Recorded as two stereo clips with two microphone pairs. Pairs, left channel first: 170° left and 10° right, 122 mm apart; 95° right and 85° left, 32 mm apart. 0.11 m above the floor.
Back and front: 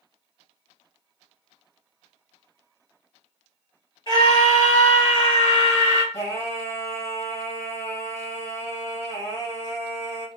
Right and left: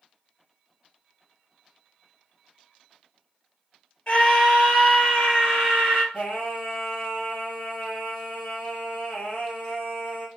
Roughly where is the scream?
Behind right.